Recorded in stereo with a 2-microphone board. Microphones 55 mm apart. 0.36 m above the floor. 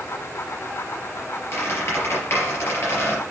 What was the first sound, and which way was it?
A squeak, 50° left (ahead or behind).